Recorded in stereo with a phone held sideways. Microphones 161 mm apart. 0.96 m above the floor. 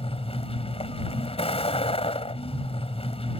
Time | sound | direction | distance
0.0 | a vehicle | 40° left (ahead or behind) | ?